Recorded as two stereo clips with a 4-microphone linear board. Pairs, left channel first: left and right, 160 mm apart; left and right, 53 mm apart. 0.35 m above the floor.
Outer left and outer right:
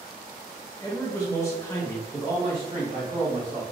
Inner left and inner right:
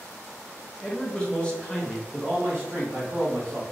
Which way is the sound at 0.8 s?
20° left (ahead or behind).